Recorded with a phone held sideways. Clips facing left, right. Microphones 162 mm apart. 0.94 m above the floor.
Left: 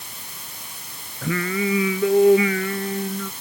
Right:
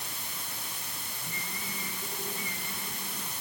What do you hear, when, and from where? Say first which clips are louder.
1.2 s singing: left 22 dB; 85° left